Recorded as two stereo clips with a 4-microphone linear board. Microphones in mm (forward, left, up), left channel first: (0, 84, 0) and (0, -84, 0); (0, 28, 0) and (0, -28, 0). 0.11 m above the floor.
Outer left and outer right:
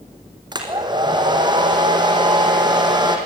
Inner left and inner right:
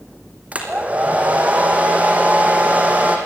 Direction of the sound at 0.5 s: 25° right (ahead or behind).